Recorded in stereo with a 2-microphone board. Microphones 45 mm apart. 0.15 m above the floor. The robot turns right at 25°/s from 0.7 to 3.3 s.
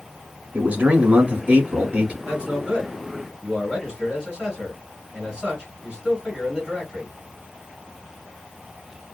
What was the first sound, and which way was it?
A man speaking, 105° right.